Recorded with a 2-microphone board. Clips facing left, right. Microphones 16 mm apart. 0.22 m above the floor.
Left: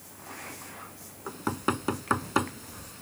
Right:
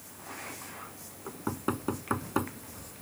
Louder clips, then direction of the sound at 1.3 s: Left 4 dB; 50° left (ahead or behind).